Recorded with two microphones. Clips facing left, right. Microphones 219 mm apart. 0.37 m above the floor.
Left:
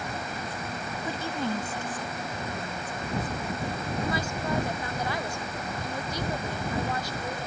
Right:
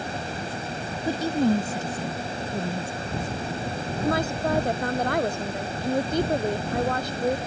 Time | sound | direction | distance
1.1 | a woman speaking | 40° right (ahead or behind) | ?
4.0 | a woman speaking | 55° right (ahead or behind) | ?